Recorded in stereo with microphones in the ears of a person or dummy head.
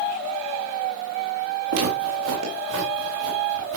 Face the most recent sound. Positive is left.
turn(degrees=-80)